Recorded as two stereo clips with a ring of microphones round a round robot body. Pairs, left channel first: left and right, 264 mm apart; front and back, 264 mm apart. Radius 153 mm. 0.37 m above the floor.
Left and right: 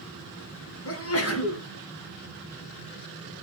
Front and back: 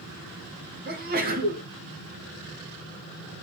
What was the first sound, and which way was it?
A sneeze, 120° left.